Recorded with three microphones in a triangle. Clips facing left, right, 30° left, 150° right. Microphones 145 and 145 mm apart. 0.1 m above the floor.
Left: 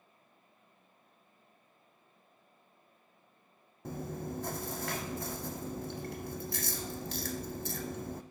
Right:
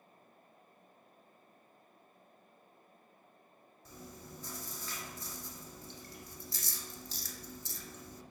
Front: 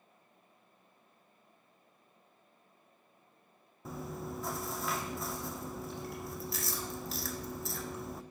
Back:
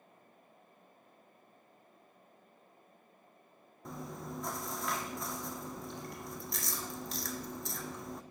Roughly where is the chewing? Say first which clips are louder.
Left 12 dB, front 2 dB; behind left.